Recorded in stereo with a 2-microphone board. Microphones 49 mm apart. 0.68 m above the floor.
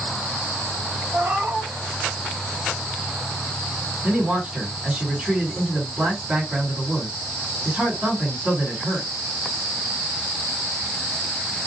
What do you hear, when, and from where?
1.1 s a cat meowing: 45° right (ahead or behind), 1.4 m
4.0 s a man speaking: 15° right (ahead or behind), 1.8 m